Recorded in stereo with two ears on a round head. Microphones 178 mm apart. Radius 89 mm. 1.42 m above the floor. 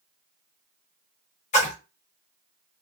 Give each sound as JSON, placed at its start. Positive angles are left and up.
{"t": 1.5, "sound": "a splash", "side_deg": 35, "distance_m": 0.9}